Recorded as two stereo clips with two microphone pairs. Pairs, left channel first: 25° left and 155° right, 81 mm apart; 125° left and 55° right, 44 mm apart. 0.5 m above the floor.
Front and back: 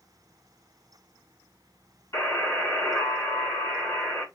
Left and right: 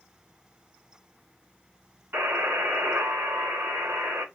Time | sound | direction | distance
2.1 | a buzzer | 20° right | 3.5 m